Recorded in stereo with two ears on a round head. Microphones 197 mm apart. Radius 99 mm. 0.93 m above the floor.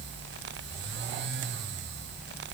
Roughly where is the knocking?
I don't hear knocking.